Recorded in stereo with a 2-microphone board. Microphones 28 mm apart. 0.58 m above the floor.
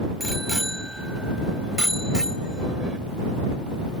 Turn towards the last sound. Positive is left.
turn(degrees=-30)  # may be behind; listen again after turning